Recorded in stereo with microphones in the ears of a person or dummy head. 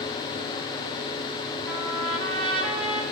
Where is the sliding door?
I don't hear a sliding door.